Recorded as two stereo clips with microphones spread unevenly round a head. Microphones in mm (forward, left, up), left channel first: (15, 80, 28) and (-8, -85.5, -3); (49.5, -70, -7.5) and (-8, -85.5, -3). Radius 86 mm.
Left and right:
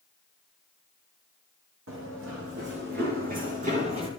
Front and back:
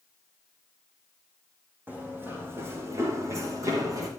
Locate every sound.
1.9 s running footsteps: 110° right, 4 m; by 4.1 s 160° right, 3 m